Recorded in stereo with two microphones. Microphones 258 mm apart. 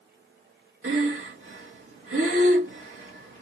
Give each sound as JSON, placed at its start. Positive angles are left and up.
{"t": 0.8, "sound": "breathing", "side_deg": -55, "distance_m": 1.2}